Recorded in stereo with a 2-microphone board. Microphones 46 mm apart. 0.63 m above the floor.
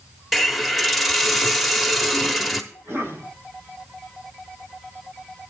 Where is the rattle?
No rattle in this recording.